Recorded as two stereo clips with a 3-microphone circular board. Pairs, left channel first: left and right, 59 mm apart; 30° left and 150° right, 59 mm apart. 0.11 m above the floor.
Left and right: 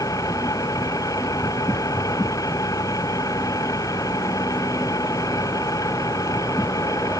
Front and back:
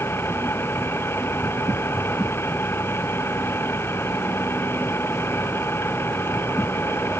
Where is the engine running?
80° left.